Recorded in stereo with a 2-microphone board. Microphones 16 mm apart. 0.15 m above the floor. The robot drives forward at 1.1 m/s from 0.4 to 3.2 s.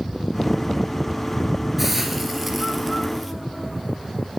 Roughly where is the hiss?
Centre.